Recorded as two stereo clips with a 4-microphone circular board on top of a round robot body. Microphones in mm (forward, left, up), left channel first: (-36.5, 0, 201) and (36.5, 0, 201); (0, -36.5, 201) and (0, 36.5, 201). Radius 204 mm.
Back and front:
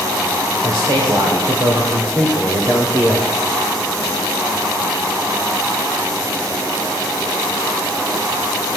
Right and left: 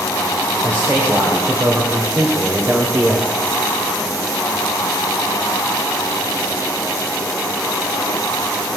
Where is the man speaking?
30° left, 3.5 m; by 3.3 s 40° left, 2 m.